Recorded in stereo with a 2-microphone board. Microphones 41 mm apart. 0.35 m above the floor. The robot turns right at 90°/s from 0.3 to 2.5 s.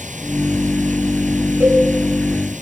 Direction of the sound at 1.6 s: 70° right (ahead or behind).